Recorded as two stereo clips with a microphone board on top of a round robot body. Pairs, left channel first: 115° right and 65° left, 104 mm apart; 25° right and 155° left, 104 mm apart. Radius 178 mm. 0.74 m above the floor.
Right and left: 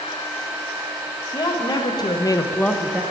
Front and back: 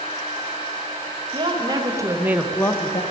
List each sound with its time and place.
1.3 s a woman speaking: 160° right, 2 m; by 3.0 s 10° right, 1.1 m